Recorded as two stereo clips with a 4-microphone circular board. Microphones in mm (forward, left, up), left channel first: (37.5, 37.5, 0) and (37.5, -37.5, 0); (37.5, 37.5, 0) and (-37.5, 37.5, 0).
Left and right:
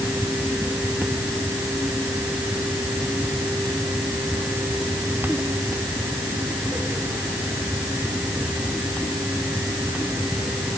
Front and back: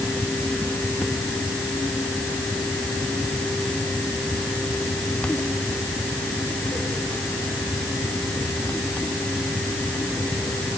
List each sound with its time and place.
Only background noise.